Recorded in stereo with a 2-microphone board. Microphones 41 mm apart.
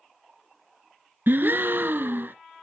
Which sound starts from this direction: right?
A gasp, at 1.3 s.